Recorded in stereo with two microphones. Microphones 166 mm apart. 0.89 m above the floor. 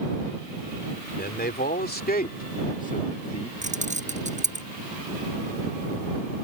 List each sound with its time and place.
1.2 s a man speaking: 75° left (ahead or behind); by 3.5 s 35° left (ahead or behind)
3.6 s keys jangling: 45° right (ahead or behind)